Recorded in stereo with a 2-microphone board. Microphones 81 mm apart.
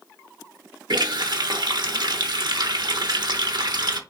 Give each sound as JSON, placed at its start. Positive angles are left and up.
{"t": 0.9, "sound": "a running tap", "side_deg": -60, "distance_m": 0.7}